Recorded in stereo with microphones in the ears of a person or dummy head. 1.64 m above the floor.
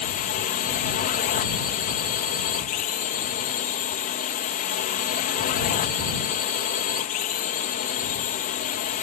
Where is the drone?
45° left (ahead or behind).